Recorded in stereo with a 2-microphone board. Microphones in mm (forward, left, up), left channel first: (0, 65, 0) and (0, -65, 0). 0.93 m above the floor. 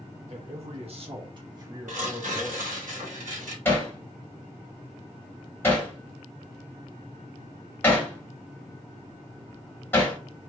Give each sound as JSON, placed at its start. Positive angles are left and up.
{"t": 0.3, "sound": "a man speaking", "side_deg": -55, "distance_m": 1.1}
{"t": 1.9, "sound": "tearing paper", "side_deg": -75, "distance_m": 1.8}
{"t": 3.6, "sound": "hammering", "side_deg": 20, "distance_m": 1.5}